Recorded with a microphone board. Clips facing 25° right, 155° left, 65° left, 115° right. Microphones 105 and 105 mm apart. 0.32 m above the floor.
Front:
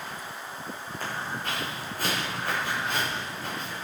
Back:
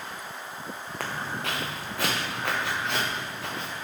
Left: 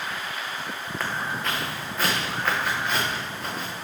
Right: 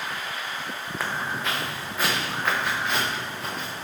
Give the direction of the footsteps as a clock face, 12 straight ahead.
7 o'clock.